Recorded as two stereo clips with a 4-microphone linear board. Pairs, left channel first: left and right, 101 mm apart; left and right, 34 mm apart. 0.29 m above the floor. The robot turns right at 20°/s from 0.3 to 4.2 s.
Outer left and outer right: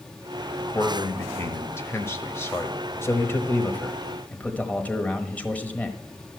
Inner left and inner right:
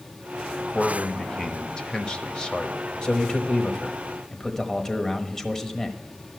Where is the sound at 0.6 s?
25° left (ahead or behind), 1.0 m.